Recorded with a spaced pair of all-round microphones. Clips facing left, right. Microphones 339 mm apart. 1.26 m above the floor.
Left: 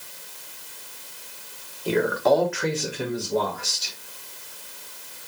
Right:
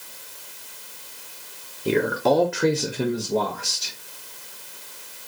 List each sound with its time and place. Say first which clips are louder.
1.9 s a man speaking: even; 30° right (ahead or behind), 0.8 m